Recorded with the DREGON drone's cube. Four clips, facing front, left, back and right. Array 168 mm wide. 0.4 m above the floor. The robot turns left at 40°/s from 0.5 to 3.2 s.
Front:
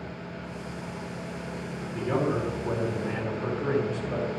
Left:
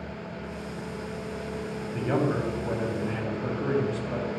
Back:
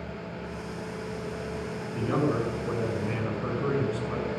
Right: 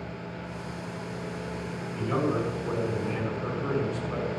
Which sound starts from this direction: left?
A man speaking, at 1.9 s.